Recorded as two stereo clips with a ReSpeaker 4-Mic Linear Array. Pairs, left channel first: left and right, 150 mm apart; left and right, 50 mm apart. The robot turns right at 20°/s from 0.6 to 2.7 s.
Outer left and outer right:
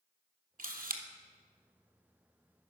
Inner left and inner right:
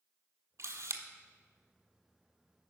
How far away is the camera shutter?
About 0.8 m.